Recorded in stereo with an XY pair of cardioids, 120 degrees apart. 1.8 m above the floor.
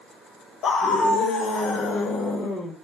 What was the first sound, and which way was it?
A scream, 55° left.